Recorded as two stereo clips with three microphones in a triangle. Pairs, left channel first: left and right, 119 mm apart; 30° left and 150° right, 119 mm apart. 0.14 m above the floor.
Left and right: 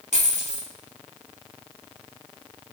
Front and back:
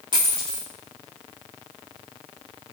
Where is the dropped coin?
105° right, 4.5 m.